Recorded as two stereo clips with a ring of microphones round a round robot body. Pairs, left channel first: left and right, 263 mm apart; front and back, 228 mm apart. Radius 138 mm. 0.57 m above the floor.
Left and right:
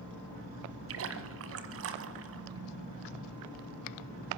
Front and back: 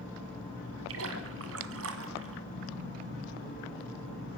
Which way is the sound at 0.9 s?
135° right.